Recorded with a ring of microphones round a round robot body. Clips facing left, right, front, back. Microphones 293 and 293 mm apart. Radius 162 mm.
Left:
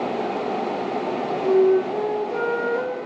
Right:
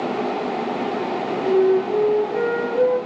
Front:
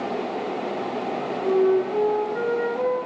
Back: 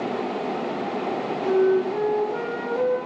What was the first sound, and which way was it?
A flute, 145° left.